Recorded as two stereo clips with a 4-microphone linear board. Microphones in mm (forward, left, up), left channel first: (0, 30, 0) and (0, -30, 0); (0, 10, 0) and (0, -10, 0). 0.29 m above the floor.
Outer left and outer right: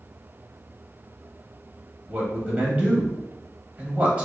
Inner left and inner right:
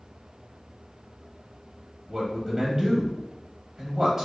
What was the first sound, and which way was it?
A man speaking, 20° right (ahead or behind).